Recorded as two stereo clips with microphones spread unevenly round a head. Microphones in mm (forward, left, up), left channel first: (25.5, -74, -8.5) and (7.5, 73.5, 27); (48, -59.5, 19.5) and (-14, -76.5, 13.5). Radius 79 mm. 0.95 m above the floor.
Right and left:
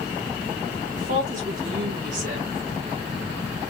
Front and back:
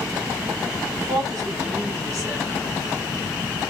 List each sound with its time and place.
0.9 s a woman speaking: 140° left, 2.0 m